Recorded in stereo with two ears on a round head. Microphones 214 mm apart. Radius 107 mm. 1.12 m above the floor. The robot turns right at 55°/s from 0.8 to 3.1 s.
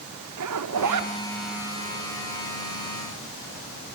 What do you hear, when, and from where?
0.4 s a zipper: 85° right, 2.5 m; by 1.1 s 80° right, 2.5 m